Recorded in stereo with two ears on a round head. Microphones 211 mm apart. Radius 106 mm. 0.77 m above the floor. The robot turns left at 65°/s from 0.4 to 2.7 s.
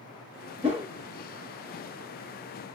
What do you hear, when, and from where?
0.6 s a whoosh: 30° right (ahead or behind), 1.1 m; by 0.9 s 20° right (ahead or behind), 1.1 m